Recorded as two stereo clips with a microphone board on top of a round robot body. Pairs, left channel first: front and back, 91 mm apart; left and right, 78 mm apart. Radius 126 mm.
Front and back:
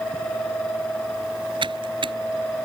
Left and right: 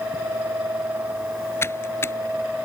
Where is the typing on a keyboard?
150° left.